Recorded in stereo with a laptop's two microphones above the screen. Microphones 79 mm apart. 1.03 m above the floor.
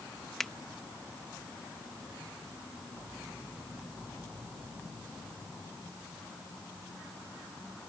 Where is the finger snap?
5° left (ahead or behind).